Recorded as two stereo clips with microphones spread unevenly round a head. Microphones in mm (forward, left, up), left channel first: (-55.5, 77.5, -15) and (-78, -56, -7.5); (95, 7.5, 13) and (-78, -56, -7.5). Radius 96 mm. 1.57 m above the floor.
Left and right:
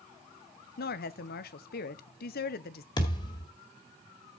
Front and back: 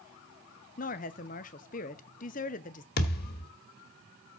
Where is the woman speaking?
70° left, 0.9 m.